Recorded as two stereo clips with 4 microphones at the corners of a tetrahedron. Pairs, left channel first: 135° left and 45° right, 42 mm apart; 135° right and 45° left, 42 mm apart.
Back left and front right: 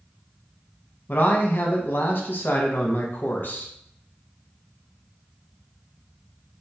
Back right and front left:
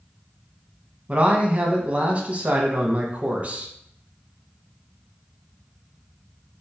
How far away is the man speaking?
About 0.8 m.